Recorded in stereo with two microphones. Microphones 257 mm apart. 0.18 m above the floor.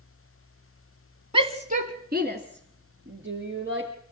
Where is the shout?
20° right (ahead or behind), 1.2 m; by 3.9 s 50° right (ahead or behind), 3.5 m.